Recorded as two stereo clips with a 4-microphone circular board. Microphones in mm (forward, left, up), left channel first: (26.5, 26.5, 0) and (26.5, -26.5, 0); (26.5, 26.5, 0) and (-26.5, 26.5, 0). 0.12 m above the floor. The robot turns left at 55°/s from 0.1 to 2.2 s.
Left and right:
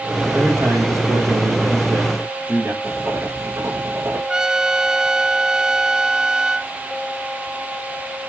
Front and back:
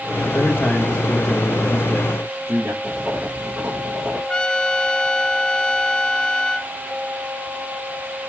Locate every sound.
0.2 s a man speaking: 30° right, 6 m; by 2.7 s 140° right, 6 m
2.8 s writing: 115° right, 4.5 m
4.3 s a trumpet: 40° right, 0.5 m